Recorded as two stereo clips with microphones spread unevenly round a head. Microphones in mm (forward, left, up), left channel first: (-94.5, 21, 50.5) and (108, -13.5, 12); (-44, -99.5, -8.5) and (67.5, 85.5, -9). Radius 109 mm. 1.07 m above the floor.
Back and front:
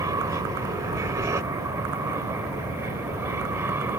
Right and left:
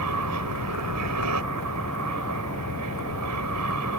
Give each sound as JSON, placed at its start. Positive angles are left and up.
{"t": 0.0, "sound": "an aircraft", "azimuth_deg": 65}